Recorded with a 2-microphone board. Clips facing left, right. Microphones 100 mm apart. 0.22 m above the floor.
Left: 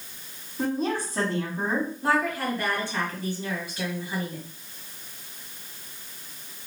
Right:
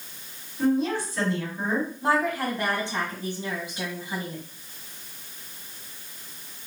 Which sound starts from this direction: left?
A woman speaking, at 0.6 s.